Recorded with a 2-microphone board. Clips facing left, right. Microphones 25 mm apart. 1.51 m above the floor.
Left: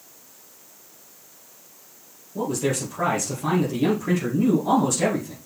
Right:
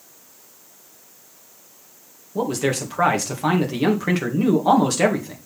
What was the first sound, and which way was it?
A man speaking, 55° right (ahead or behind).